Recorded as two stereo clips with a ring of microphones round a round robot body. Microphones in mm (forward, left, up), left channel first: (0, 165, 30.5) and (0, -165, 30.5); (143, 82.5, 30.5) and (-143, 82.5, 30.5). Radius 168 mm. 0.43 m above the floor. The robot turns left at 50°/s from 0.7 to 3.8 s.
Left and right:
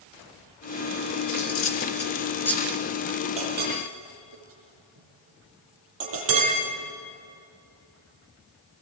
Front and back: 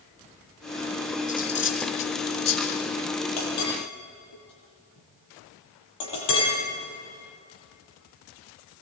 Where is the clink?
15° right, 8.5 m; by 6.5 s 40° right, 8.5 m.